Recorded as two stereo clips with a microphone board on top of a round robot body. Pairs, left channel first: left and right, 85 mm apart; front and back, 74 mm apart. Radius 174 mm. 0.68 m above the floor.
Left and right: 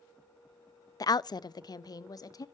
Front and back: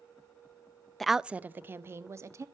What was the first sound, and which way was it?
A woman speaking, 85° left.